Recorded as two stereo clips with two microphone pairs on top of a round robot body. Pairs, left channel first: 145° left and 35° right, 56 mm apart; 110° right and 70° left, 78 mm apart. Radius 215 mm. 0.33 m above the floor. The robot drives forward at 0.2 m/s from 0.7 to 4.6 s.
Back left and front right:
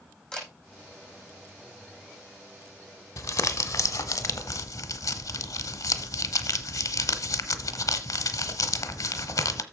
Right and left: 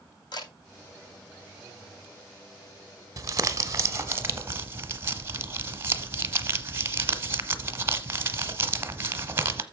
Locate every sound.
0.3 s a camera shutter: 140° right, 6 m
3.2 s crumpling: 120° left, 1.1 m; by 9.6 s 130° left, 1.3 m